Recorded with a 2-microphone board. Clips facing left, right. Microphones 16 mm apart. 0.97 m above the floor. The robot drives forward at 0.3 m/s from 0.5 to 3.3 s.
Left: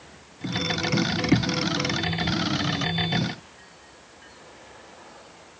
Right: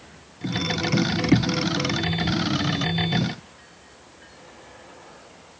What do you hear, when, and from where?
Only background noise.